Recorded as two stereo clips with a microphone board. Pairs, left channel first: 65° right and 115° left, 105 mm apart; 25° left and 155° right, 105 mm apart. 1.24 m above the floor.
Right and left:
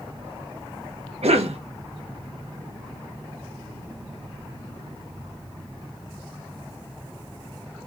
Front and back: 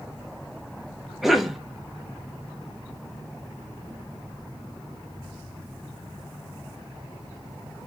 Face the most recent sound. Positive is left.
turn(degrees=115)